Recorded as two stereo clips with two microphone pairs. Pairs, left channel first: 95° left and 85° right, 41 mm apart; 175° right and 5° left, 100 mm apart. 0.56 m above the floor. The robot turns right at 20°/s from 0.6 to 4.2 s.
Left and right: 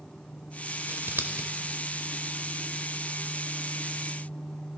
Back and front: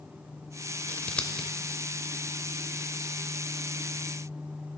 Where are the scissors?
100° right, 0.6 m; by 1.5 s 90° right, 0.6 m.